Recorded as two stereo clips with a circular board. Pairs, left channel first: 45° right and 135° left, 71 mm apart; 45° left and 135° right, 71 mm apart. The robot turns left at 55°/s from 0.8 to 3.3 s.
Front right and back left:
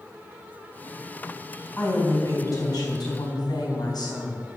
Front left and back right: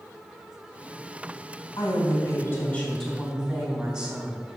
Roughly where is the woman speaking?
Ahead left.